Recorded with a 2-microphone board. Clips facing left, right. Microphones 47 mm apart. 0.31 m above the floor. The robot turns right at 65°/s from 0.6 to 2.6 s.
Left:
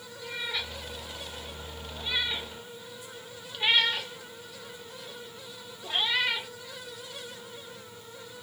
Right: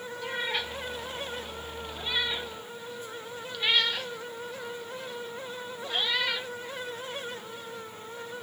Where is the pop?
No pop in this recording.